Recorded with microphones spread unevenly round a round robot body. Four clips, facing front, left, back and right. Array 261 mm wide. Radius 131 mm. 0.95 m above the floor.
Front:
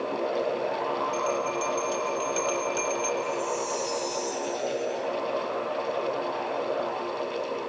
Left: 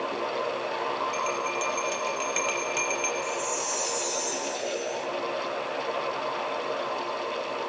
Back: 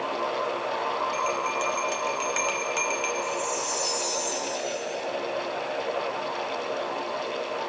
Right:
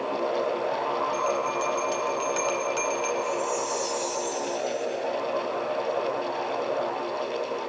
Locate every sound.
1.1 s a bell: 175° left, 3 m
3.2 s a chime: 175° right, 7.5 m